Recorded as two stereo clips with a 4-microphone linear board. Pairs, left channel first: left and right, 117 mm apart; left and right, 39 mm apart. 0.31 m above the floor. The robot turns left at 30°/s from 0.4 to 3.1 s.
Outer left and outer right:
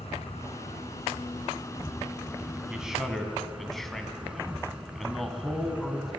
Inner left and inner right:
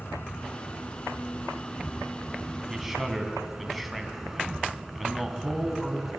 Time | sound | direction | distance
0.0 | an insect | 70° left | 2.5 m
2.7 | a man speaking | 10° right (ahead or behind) | 3 m